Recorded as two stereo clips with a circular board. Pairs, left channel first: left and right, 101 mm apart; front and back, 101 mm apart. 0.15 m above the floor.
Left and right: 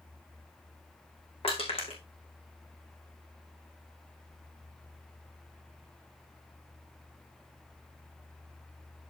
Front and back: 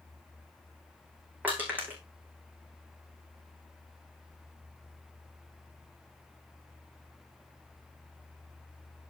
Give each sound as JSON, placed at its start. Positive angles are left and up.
{"t": 1.4, "sound": "crushing", "azimuth_deg": 110, "distance_m": 3.5}